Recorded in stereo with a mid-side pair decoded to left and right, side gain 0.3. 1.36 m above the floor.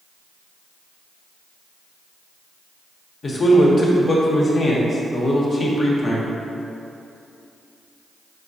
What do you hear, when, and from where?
3.2 s a man speaking: 55° left, 1.0 m